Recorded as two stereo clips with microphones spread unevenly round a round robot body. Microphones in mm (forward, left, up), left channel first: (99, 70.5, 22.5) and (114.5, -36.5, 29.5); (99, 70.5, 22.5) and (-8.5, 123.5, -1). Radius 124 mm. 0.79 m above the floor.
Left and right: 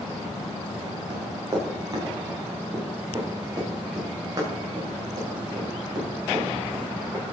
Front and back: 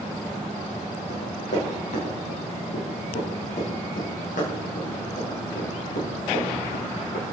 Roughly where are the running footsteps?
Ahead right.